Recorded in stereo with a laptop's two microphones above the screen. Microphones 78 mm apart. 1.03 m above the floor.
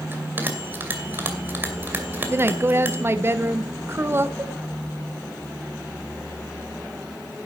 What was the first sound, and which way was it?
A bell, 30° right (ahead or behind).